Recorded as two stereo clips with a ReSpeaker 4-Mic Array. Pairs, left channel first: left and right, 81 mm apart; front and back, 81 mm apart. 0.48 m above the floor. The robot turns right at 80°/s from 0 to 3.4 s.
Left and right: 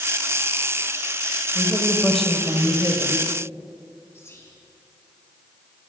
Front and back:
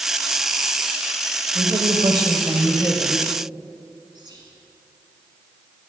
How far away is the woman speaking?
About 1.9 m.